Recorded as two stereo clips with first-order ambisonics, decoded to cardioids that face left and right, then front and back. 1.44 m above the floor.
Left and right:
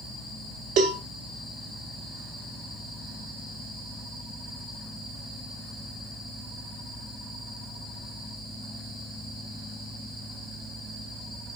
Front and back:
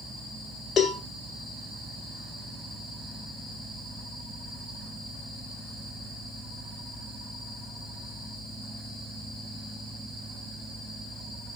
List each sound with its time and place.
0.8 s a cowbell: 65° right, 2 m